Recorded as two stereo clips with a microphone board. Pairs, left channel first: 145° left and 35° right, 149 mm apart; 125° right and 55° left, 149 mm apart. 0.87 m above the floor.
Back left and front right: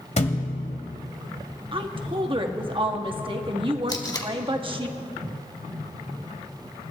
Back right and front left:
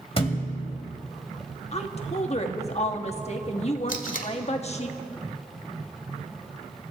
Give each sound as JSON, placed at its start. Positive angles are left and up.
{"t": 0.2, "sound": "a thud", "azimuth_deg": -175, "distance_m": 1.6}
{"t": 1.7, "sound": "a woman speaking", "azimuth_deg": -85, "distance_m": 1.2}
{"t": 3.9, "sound": "tape being pulled", "azimuth_deg": -150, "distance_m": 1.5}